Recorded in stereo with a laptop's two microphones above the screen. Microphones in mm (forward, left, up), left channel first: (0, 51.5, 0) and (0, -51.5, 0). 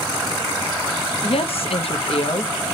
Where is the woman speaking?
70° left (ahead or behind), 0.5 m.